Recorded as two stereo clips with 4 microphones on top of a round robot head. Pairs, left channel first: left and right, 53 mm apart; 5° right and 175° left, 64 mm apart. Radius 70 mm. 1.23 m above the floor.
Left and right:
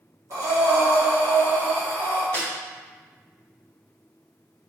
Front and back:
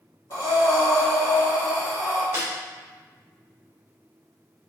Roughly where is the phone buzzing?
I don't hear a phone buzzing.